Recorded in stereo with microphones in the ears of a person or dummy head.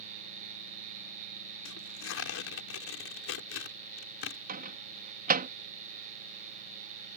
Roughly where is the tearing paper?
Left.